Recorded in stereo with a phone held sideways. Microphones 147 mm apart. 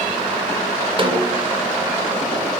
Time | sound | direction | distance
1.0 | a snare drum | 35° right (ahead or behind) | 2 m